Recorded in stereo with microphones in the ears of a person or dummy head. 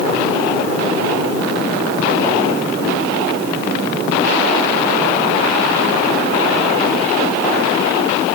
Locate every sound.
Only background noise.